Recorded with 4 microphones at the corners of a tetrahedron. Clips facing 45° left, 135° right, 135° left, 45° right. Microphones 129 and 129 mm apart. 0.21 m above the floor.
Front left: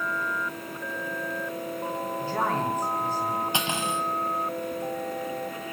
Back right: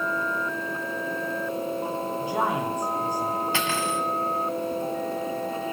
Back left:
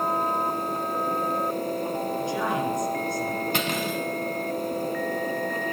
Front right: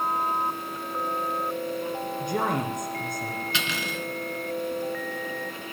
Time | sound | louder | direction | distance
2.2 | a woman speaking | back right 1 dB, front right 2 dB | 60° right | 2.5 m
3.5 | cutlery clinking | back right 2 dB, back left 5 dB | 110° left | 1.3 m